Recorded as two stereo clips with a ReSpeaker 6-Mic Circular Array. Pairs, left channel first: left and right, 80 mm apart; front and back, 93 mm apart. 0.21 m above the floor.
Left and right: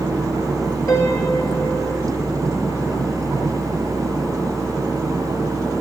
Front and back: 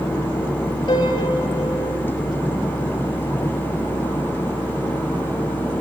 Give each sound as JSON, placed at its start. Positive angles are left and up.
{"t": 0.9, "sound": "a piano", "azimuth_deg": 35, "distance_m": 6.5}